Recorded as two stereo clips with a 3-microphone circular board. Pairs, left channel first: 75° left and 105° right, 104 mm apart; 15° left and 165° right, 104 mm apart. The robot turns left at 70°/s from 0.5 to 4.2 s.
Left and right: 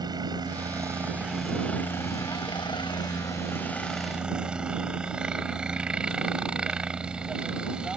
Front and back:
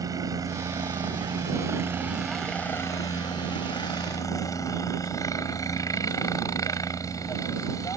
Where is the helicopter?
130° right; by 8.0 s 25° right.